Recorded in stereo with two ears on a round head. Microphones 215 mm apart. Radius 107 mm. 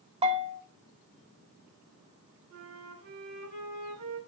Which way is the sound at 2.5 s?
60° right (ahead or behind).